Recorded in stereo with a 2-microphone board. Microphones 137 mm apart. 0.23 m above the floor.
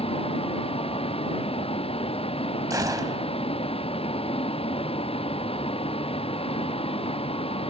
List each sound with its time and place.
0.0 s a vehicle: 40° left (ahead or behind)
2.7 s a gunshot: 25° right (ahead or behind)